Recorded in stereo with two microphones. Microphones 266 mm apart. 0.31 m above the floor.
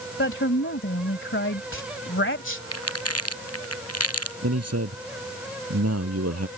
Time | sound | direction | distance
0.2 | a woman speaking | 50° left (ahead or behind) | ?
2.7 | crumpling | 65° left (ahead or behind) | ?
4.4 | a man speaking | 70° right (ahead or behind) | ?